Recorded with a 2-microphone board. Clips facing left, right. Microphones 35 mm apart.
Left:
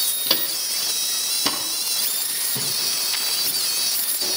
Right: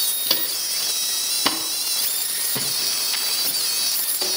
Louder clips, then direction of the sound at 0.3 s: Left 2 dB; 5° left (ahead or behind).